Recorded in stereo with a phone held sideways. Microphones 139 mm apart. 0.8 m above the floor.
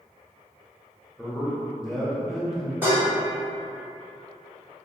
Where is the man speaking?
Centre (ahead or behind), 0.8 m.